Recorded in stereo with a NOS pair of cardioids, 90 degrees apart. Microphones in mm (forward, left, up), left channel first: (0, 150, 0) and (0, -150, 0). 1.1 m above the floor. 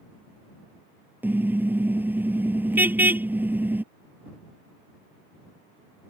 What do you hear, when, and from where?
1.2 s a car horn: 5° right